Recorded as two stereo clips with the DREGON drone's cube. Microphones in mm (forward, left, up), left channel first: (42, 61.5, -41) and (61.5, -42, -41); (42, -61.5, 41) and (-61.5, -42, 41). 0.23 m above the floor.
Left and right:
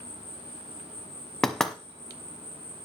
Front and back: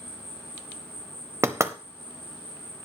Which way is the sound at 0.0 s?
75° right.